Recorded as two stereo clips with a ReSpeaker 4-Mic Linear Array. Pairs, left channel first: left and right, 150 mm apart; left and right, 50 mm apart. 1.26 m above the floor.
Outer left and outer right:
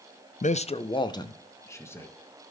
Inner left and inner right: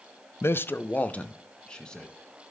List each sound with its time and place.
0.4 s a man speaking: 55° left (ahead or behind), 0.5 m; by 2.1 s 15° left (ahead or behind), 1.5 m